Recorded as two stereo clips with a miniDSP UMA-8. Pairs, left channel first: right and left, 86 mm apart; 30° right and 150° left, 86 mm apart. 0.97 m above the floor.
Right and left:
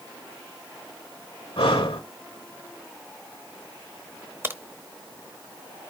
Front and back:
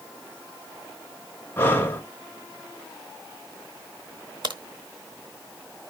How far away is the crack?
About 1.1 m.